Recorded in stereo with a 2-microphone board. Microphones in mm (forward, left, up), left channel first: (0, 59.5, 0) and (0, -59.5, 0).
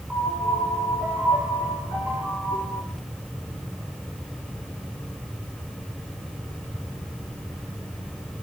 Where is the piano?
15° right (ahead or behind), 4 m.